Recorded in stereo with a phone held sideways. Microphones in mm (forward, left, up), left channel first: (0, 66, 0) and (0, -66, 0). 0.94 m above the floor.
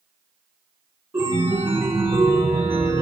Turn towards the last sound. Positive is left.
turn(degrees=-40)  # may be behind; listen again after turning